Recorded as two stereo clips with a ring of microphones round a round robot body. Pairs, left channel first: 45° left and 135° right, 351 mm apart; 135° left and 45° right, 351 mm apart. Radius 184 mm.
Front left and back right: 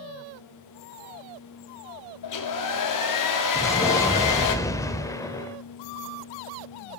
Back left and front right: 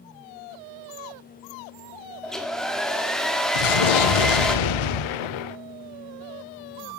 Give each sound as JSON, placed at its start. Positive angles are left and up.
{"t": 2.2, "sound": "a hair dryer", "azimuth_deg": 45, "distance_m": 1.9}
{"t": 3.5, "sound": "an explosion", "azimuth_deg": 125, "distance_m": 0.6}